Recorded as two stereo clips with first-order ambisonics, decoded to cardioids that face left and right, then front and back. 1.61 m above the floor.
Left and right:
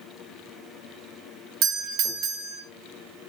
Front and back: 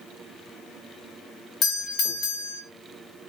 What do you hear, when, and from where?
1.6 s a doorbell: 50° right, 0.7 m